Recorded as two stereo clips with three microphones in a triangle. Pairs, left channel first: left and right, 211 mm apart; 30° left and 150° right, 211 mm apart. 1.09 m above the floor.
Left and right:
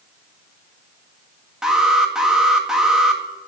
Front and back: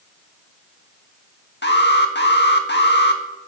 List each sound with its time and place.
1.6 s an alarm: 5° right, 1.7 m